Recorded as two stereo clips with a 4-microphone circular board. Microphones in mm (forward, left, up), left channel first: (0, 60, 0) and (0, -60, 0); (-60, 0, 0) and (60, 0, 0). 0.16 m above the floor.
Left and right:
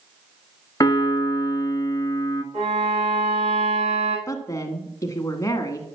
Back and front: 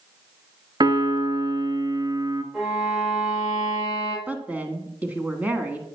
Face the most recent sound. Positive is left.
turn(degrees=65)